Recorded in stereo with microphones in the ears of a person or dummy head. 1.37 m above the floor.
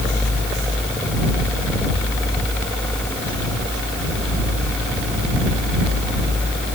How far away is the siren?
I don't hear a siren.